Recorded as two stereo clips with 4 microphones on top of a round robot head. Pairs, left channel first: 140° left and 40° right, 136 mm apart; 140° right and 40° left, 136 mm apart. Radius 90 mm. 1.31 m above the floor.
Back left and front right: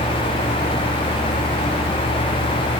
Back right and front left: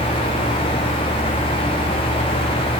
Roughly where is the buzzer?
No buzzer in this recording.